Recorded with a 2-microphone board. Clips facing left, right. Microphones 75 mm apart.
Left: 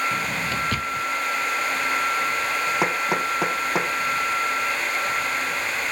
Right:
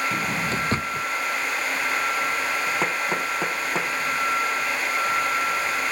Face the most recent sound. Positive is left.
turn(degrees=15)  # may be behind; listen again after turning